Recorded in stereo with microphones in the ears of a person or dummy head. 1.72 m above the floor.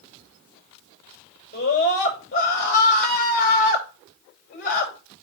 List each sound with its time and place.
1.5 s a scream: 40° left (ahead or behind), 5.5 m